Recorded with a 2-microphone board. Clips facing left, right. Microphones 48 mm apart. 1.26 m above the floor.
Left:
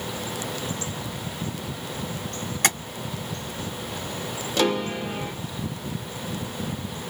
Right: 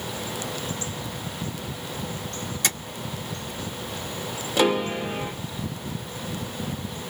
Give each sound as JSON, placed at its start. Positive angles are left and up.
{"t": 2.6, "sound": "tapping", "side_deg": 55, "distance_m": 1.8}
{"t": 4.6, "sound": "a piano", "side_deg": -15, "distance_m": 0.8}